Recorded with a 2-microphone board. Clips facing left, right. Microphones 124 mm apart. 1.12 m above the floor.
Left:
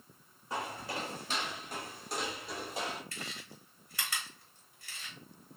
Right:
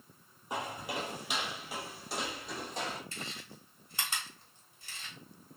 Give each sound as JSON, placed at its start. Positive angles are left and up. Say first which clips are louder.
{"t": 0.5, "sound": "footsteps", "louder": "right 1 dB", "side_deg": -20, "distance_m": 1.2}
{"t": 3.1, "sound": "chewing", "louder": "right 1 dB", "side_deg": -25, "distance_m": 1.2}